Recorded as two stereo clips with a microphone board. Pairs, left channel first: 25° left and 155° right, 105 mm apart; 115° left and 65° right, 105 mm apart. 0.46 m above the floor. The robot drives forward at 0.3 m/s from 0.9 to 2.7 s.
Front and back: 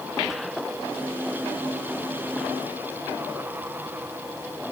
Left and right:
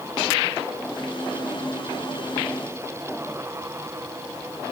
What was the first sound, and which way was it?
Only background noise.